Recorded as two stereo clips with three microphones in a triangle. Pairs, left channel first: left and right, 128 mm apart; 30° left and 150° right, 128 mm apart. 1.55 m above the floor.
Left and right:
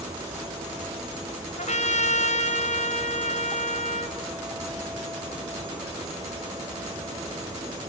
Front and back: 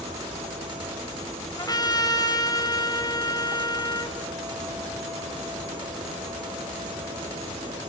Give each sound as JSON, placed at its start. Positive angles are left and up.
{"t": 1.6, "sound": "a trumpet", "azimuth_deg": 85, "distance_m": 3.0}